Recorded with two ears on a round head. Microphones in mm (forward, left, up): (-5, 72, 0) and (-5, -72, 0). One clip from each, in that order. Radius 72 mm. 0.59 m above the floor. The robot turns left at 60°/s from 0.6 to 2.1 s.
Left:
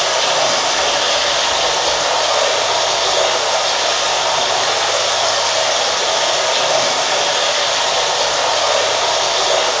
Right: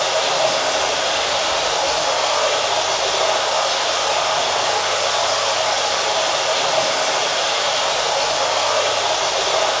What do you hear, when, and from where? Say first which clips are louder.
0.0 s running water: left 3 dB; 125° left, 2.5 m; by 9.8 s 35° left, 2.5 m